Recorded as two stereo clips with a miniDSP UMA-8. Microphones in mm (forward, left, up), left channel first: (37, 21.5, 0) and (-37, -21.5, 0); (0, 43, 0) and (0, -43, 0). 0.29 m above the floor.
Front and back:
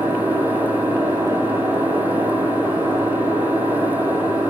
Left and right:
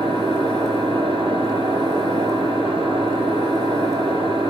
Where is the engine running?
85° right, 4.5 m.